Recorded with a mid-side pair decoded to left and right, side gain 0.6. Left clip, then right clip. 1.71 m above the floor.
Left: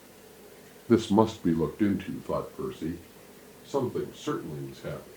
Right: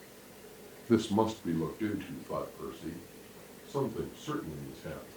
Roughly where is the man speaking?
Ahead left.